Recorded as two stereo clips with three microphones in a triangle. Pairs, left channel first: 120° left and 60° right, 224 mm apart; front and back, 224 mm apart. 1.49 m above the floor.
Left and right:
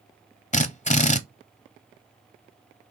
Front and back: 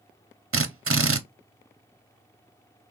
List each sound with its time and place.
0.5 s a drill: straight behind, 0.5 m